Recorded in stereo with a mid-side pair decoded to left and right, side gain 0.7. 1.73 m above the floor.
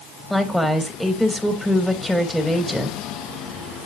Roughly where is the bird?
No bird in this recording.